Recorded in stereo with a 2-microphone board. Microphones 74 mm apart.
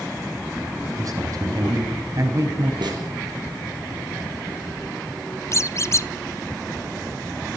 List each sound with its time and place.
1.0 s a man speaking: 50° right (ahead or behind), 4.5 m
2.8 s a snare drum: 70° right (ahead or behind), 8.5 m
5.5 s a squeak: 40° left (ahead or behind), 0.6 m